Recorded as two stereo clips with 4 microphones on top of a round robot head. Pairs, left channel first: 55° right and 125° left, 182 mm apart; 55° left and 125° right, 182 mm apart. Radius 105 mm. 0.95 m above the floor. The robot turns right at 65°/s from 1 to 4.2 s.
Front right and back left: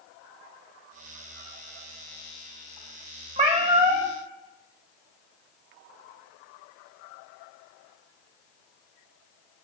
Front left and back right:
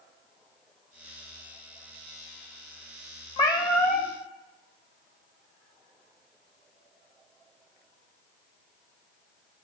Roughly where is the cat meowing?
Left.